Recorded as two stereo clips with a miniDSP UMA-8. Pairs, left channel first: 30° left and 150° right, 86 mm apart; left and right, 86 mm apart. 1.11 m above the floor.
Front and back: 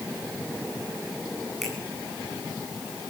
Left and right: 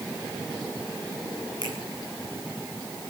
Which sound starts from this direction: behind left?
A finger snap, at 1.6 s.